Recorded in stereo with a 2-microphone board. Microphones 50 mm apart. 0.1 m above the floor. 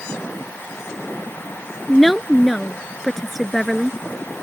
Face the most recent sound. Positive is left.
turn(degrees=0)  # may be behind; listen again after turning